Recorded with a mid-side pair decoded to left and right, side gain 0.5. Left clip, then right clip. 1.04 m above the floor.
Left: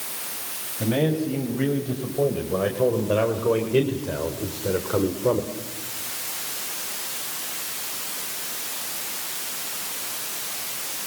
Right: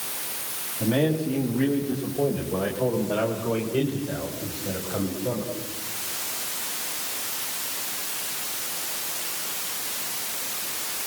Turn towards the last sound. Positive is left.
turn(degrees=80)